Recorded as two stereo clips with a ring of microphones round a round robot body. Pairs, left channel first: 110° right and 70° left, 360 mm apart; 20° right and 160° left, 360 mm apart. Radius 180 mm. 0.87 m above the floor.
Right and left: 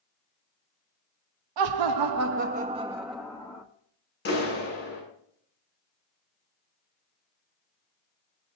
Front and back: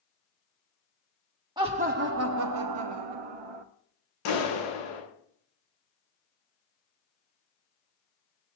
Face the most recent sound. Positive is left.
turn(degrees=-50)